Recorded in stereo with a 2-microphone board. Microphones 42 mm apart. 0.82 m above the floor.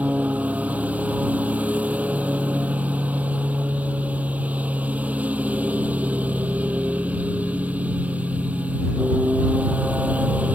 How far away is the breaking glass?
No breaking glass in this recording.